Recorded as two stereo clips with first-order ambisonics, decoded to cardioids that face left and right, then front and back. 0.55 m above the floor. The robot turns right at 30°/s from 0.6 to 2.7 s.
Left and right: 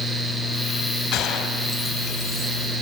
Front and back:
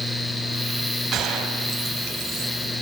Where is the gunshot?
130° left, 2.5 m; by 2.5 s 170° left, 2.5 m.